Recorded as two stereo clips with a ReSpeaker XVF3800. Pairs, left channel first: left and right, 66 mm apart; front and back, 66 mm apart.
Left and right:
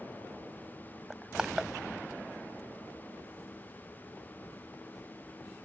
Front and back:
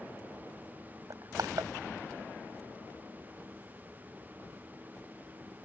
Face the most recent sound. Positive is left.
turn(degrees=-170)